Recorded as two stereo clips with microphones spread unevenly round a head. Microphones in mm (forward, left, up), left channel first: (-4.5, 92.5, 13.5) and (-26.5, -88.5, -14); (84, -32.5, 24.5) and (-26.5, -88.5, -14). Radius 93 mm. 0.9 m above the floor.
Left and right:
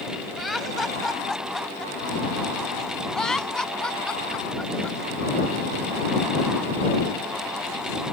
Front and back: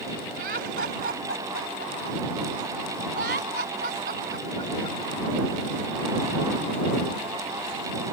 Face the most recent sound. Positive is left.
turn(degrees=170)